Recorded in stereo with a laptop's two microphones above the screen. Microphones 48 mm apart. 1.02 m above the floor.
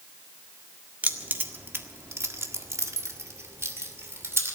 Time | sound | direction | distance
1.0 | keys jangling | 35° right (ahead or behind) | 1.8 m